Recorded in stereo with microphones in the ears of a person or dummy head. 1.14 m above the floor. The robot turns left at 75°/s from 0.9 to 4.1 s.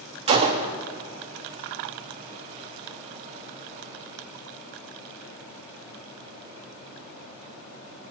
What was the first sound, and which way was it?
A gunshot, 25° right (ahead or behind).